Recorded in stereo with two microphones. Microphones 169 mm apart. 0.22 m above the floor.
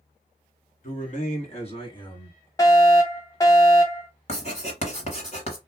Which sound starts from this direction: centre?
A fire alarm, at 2.6 s.